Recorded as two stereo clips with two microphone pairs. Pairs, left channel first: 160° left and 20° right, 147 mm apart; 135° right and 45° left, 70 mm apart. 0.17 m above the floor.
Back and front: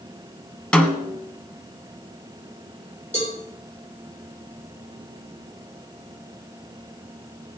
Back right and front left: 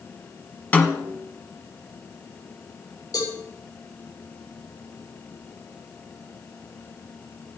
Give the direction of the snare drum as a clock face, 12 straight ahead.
4 o'clock.